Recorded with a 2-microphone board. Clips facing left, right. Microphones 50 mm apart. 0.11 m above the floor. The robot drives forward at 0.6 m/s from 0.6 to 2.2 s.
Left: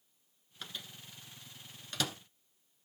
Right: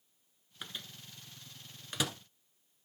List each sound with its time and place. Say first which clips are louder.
0.6 s a microwave: even; 15° right (ahead or behind), 1.3 m